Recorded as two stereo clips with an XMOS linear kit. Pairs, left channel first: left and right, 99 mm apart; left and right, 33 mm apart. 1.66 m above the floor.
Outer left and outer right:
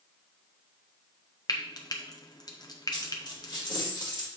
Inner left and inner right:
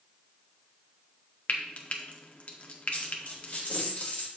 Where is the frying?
40° left (ahead or behind), 0.9 m.